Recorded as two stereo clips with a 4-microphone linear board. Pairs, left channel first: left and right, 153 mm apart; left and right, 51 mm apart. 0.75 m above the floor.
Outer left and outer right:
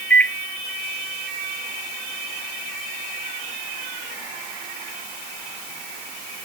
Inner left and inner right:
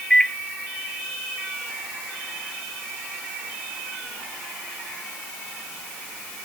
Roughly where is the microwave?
Centre.